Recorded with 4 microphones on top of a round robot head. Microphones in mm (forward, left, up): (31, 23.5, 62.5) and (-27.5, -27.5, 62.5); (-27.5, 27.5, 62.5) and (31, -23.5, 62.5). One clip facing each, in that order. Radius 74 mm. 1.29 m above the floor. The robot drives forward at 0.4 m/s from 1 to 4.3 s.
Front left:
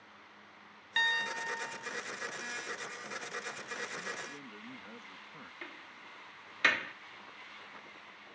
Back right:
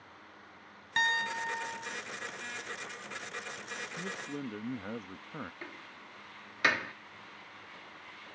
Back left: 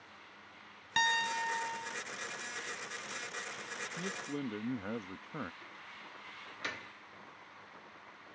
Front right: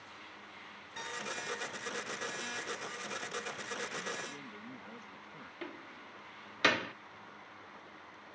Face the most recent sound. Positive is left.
turn(degrees=-60)